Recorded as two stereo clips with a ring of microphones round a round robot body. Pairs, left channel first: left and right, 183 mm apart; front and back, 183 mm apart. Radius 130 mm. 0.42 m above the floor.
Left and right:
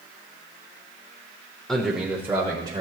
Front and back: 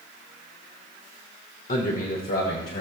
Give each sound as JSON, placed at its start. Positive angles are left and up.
{"t": 1.7, "sound": "a man speaking", "azimuth_deg": 5, "distance_m": 1.2}